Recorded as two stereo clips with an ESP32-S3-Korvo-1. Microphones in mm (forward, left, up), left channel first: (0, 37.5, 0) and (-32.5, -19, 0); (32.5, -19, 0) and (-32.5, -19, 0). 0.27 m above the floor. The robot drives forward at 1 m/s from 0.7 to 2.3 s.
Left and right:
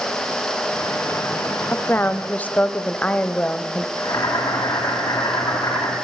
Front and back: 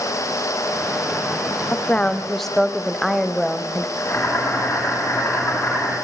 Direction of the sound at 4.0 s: 50° left.